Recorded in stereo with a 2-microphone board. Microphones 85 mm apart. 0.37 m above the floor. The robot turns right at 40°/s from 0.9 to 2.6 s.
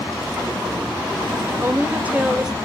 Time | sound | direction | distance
1.6 | a woman speaking | 45° right | 1.2 m